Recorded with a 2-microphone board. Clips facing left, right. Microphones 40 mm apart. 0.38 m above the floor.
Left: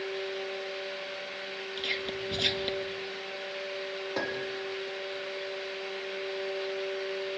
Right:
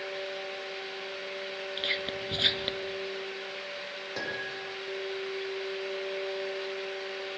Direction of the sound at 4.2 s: 10° left (ahead or behind).